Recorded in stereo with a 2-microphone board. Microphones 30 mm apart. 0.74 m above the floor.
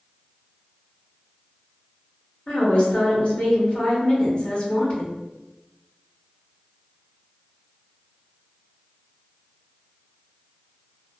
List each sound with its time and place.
2.5 s a woman speaking: 50° left (ahead or behind), 1.3 m